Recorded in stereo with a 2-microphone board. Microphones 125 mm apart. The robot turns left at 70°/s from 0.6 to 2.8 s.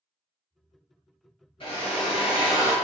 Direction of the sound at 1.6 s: 115° left.